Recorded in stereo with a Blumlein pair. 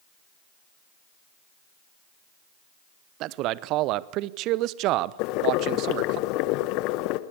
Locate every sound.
3.2 s a man speaking: 40° right, 0.8 m
5.2 s boiling: 40° left, 1.2 m